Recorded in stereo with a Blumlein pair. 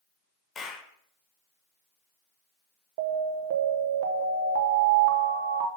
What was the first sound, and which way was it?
A clap, 20° left.